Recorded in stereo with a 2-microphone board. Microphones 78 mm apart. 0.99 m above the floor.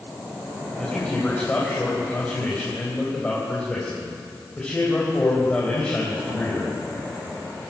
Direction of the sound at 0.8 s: 15° left (ahead or behind).